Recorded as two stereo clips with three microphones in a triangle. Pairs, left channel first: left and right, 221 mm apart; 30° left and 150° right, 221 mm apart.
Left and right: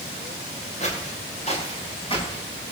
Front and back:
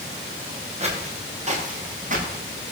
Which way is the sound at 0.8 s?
150° left.